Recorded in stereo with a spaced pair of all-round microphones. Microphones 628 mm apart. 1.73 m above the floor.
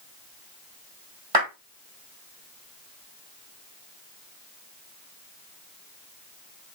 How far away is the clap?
About 3 m.